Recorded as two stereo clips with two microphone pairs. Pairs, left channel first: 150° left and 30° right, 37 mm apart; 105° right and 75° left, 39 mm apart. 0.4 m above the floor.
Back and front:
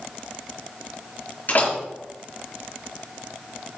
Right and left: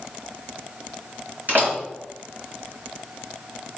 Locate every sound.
1.5 s a door slam: 110° left, 4.5 m